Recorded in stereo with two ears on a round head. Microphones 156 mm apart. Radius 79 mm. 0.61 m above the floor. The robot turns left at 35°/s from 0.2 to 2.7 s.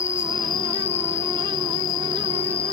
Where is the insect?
140° left; by 2.7 s 50° left.